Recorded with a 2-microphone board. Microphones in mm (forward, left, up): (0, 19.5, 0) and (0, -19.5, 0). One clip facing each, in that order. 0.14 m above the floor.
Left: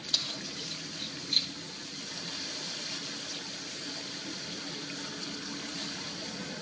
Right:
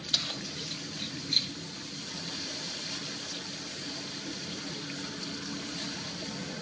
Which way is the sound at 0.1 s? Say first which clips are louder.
Right 2 dB; 40° right (ahead or behind).